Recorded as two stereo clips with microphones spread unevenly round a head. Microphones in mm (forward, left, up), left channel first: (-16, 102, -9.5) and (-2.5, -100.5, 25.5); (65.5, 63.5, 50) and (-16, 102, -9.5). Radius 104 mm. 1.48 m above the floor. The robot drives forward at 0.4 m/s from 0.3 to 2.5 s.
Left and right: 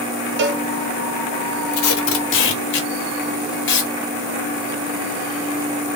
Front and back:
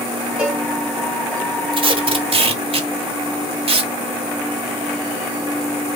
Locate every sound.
0.4 s a cowbell: 100° right, 0.6 m; by 0.7 s 110° right, 0.6 m
1.7 s tape being pulled: 110° left, 0.8 m; by 3.9 s 130° left, 1.0 m